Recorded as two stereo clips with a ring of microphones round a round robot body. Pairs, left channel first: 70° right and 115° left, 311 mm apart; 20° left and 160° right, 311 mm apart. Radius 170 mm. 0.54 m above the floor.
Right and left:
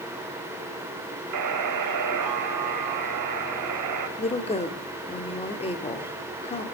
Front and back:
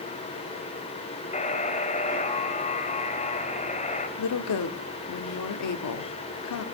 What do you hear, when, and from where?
1.3 s a buzzer: 90° left, 3 m
4.2 s a woman speaking: straight ahead, 1.2 m